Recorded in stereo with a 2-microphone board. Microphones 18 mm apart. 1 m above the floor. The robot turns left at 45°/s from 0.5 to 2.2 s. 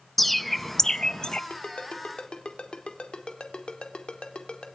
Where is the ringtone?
80° left, 2.5 m; by 4.7 s 50° left (ahead or behind), 2.5 m.